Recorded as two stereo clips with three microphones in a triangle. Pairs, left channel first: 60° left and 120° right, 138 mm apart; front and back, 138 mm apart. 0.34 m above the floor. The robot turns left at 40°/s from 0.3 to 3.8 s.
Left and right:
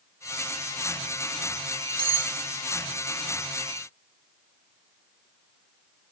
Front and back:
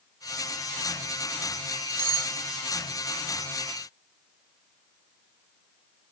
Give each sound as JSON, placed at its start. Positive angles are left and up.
{"t": 2.0, "sound": "cutlery clinking", "azimuth_deg": -115, "distance_m": 0.7}